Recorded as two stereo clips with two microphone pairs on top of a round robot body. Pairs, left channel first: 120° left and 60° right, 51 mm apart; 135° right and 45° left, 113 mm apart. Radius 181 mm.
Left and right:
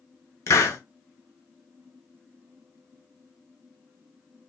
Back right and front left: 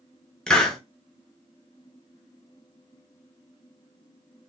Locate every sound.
0.5 s a hiss: 145° left, 0.9 m